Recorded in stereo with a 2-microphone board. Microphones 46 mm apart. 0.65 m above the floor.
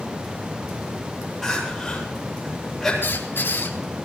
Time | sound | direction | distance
1.4 | crying | 5° left (ahead or behind) | 8.5 m
3.0 | a squeak | 60° left (ahead or behind) | 4 m